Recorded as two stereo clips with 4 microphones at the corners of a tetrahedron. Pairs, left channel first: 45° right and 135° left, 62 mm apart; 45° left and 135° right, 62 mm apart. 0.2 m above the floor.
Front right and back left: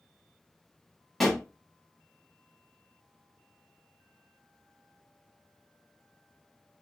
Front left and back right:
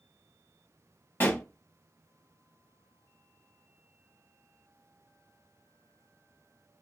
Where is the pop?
45° left, 1.3 m.